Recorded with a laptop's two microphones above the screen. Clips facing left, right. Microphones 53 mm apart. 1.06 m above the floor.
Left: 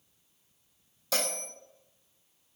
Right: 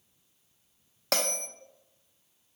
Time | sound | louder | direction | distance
1.1 | a bell | right 2 dB | 65° right (ahead or behind) | 0.6 m